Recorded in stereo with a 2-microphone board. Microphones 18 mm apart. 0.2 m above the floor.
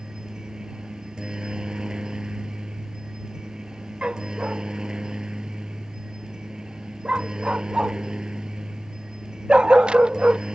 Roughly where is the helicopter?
Right.